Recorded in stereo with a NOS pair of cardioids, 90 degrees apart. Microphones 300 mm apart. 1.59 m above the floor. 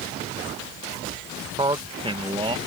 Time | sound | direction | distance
1.6 | a man speaking | 15° right | ?